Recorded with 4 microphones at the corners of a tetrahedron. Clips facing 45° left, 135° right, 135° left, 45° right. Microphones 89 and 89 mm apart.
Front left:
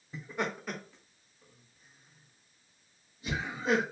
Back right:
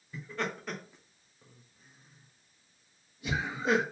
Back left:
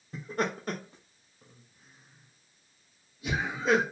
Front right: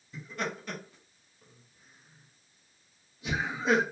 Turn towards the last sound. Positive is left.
turn(degrees=-115)